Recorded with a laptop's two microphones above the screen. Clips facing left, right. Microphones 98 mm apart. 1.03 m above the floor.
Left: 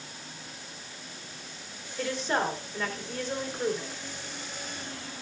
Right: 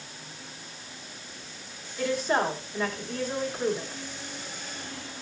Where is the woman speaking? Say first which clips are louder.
Right 3 dB; 5° right (ahead or behind), 3.5 m.